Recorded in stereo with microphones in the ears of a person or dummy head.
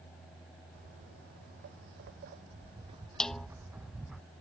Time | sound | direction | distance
0.8 | footsteps | 60° right (ahead or behind) | ?
3.2 | a snare drum | 5° left (ahead or behind) | ?